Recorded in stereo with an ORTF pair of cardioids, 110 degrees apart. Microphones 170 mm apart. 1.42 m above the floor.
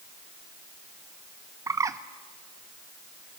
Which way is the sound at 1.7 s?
20° right.